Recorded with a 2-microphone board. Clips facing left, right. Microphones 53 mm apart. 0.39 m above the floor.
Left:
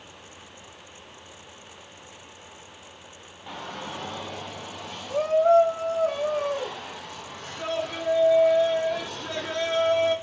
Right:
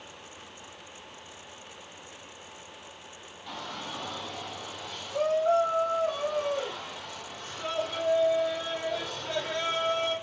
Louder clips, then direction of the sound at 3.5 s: Left 3 dB; 20° left (ahead or behind).